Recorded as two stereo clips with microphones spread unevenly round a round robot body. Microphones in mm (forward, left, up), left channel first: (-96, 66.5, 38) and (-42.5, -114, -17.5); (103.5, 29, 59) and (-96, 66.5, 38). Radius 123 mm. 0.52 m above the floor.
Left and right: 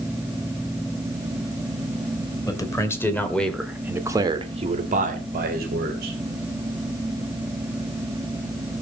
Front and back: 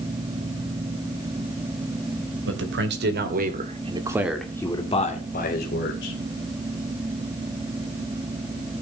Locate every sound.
2.5 s a man speaking: 175° right, 3 m; by 6.2 s 45° right, 3 m